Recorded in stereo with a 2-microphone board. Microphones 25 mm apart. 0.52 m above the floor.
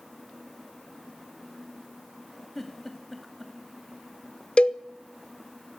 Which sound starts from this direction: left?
A cowbell, at 4.6 s.